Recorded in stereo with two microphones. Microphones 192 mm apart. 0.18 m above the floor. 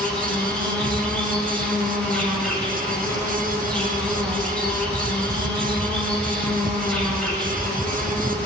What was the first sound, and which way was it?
An insect, 5° left (ahead or behind).